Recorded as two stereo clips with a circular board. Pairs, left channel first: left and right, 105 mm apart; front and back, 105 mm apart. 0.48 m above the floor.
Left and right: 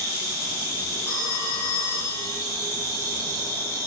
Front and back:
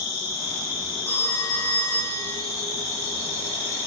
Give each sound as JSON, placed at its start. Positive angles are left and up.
{"t": 0.0, "sound": "an insect", "azimuth_deg": 40, "distance_m": 2.0}
{"t": 1.1, "sound": "a phone ringing", "azimuth_deg": 45, "distance_m": 2.5}